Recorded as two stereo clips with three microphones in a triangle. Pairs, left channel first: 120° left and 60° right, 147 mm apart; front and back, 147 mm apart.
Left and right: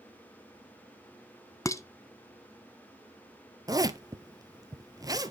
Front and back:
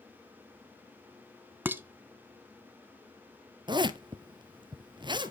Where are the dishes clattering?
130° left, 0.8 m.